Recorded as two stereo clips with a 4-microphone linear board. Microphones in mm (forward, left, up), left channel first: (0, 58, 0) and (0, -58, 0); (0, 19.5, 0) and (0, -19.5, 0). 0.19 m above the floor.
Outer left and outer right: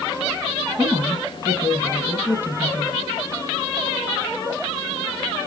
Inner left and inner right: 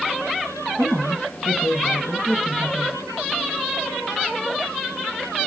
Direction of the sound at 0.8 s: 15° right (ahead or behind).